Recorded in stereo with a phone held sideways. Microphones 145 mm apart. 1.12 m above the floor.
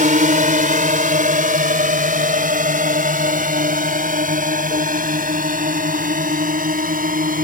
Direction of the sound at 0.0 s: 65° right (ahead or behind).